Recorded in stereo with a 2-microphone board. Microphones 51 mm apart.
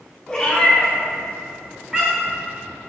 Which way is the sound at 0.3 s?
15° left (ahead or behind).